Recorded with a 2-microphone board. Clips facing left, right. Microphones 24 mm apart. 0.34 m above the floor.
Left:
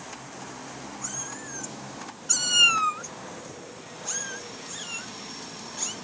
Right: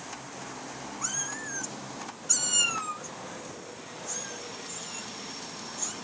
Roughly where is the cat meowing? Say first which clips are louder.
Right 5 dB; right.